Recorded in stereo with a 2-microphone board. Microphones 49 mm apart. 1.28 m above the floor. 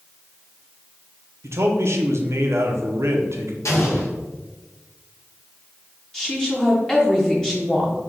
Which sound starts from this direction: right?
A man speaking, at 1.4 s.